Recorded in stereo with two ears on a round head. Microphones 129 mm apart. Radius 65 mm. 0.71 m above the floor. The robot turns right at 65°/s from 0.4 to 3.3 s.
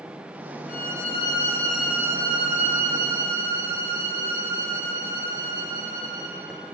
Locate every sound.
0.7 s a violin: 110° left, 4 m; by 6.5 s 80° right, 4 m